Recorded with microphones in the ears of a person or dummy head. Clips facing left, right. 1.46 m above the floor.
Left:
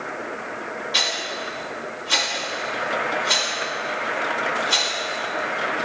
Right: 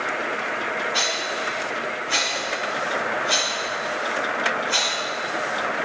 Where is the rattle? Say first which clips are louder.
Right 2 dB; 65° left (ahead or behind), 5.5 m.